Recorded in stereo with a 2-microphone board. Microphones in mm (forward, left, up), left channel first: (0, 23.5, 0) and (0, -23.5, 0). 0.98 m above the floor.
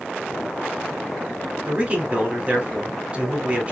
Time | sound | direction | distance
1.7 | a man speaking | 25° right (ahead or behind) | 3.5 m